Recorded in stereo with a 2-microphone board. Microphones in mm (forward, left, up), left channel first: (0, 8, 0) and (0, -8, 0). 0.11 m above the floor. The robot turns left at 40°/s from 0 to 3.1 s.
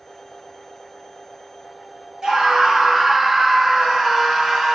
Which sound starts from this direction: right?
A scream, at 2.2 s.